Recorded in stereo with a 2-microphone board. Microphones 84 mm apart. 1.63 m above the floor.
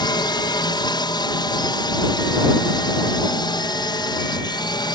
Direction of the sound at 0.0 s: 60° left (ahead or behind).